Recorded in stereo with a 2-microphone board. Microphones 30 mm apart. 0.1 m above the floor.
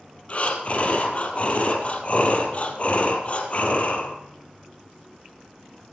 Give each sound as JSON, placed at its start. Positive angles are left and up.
{"t": 0.3, "sound": "breathing", "side_deg": 45, "distance_m": 3.0}